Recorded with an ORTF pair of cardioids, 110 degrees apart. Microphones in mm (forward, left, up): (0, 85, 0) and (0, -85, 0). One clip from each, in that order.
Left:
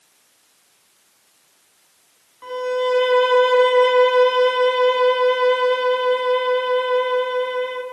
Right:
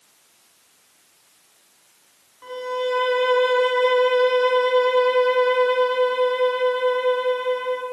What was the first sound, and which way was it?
A violin, 25° left.